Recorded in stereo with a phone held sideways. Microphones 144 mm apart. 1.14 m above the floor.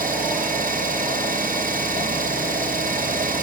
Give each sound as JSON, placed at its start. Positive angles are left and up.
{"t": 0.0, "sound": "an engine running", "side_deg": -85, "distance_m": 8.5}